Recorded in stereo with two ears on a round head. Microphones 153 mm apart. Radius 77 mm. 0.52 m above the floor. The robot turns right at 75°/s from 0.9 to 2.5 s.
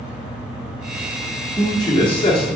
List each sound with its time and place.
1.6 s a man speaking: 25° left, 1.1 m; by 2.6 s 95° left, 1.1 m